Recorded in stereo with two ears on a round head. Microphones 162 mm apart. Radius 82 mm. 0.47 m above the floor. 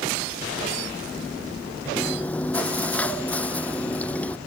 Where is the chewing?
10° left (ahead or behind).